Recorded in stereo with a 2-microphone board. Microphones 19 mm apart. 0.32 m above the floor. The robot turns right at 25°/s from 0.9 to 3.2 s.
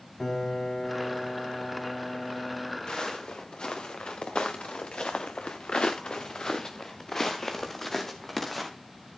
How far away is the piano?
About 2 m.